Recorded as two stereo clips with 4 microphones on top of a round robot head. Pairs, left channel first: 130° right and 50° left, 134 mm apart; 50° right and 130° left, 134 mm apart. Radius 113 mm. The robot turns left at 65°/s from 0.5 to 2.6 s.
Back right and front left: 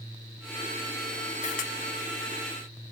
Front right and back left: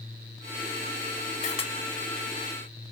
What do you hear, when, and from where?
1.4 s a camera shutter: 85° right, 0.9 m; by 1.7 s 105° right, 0.9 m